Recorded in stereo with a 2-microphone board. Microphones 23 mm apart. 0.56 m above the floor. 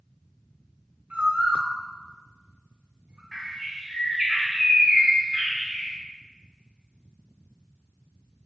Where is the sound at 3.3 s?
15° right (ahead or behind), 1.4 m.